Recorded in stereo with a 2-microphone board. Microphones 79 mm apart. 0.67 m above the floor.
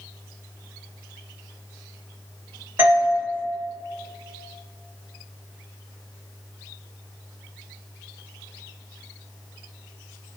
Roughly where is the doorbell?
Right.